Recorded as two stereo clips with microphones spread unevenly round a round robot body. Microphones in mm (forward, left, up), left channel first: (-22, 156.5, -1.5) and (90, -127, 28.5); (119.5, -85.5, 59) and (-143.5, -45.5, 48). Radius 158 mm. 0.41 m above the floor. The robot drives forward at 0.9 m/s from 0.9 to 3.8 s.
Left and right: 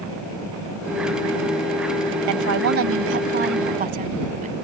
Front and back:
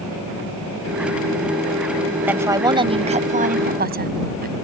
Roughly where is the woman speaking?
Right.